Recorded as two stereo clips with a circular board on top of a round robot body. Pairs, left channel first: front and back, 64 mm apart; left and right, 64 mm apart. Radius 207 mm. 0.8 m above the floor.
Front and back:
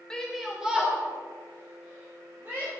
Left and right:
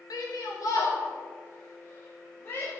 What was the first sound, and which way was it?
A shout, 80° left.